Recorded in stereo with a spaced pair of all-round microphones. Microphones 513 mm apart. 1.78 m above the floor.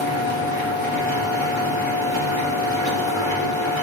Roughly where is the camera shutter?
I don't hear a camera shutter.